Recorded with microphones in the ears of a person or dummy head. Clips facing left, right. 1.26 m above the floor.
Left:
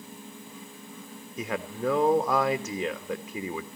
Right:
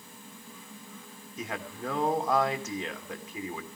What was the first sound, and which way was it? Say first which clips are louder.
A man speaking: left 6 dB; 65° left (ahead or behind).